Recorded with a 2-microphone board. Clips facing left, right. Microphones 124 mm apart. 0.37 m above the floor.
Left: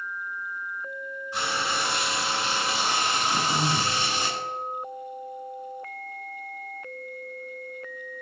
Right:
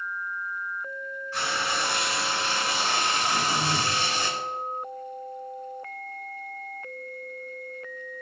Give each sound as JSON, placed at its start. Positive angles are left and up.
{"t": 1.3, "sound": "frying", "side_deg": 15, "distance_m": 2.5}
{"t": 3.3, "sound": "throat clearing", "side_deg": 10, "distance_m": 2.0}